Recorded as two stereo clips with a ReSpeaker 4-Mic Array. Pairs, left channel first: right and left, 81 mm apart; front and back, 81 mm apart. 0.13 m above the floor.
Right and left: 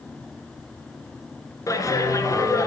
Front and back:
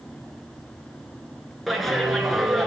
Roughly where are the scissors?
No scissors in this recording.